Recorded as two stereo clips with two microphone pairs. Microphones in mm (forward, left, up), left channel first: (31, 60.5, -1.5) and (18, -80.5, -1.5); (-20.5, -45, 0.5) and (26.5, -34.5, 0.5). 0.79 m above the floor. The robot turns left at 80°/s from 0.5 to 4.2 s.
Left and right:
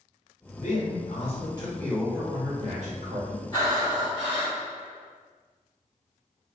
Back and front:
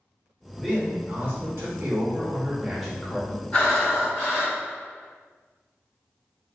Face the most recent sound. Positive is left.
turn(degrees=70)